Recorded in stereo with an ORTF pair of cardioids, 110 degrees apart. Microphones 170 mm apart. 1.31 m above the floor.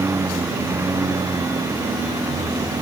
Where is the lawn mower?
15° right; by 2.8 s 20° right.